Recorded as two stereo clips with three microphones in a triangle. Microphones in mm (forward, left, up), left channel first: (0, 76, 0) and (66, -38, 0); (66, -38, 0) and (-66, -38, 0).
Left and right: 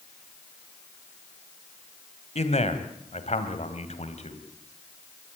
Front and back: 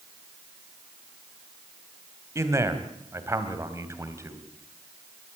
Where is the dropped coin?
I don't hear a dropped coin.